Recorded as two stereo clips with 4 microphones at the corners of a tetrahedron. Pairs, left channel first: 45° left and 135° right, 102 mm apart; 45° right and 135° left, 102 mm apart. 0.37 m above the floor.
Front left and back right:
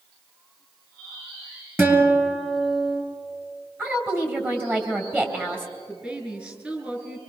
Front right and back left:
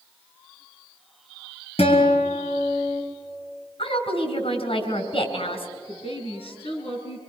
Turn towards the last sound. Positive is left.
turn(degrees=-60)